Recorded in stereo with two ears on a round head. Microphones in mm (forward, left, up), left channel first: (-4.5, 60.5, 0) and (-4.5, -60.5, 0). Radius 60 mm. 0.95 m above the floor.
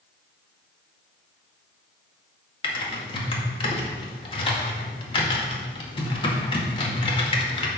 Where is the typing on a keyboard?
40° left (ahead or behind), 2.0 m.